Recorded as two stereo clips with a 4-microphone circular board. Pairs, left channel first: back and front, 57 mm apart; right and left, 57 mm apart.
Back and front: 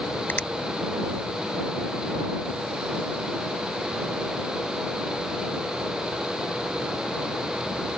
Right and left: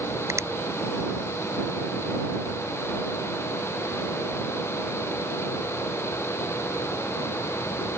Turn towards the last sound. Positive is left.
turn(degrees=125)